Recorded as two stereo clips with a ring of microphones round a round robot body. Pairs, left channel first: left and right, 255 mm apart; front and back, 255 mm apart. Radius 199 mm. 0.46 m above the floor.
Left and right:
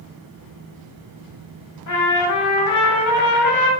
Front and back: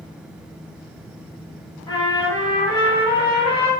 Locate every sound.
1.9 s a trumpet: 80° left, 0.8 m